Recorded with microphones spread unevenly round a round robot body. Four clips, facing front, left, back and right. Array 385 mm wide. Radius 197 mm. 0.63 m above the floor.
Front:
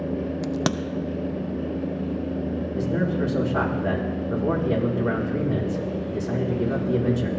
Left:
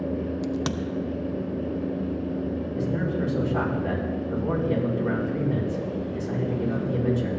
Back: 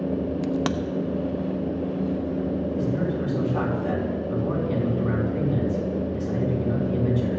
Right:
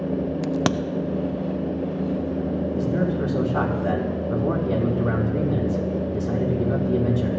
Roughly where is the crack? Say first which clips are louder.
Right 5 dB, even; ahead right.